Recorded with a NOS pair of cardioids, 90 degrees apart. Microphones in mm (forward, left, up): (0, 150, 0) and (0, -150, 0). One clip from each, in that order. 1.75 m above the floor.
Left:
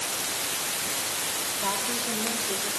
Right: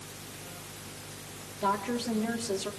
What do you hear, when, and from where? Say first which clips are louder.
1.6 s a woman speaking: right 2 dB; 20° right, 4 m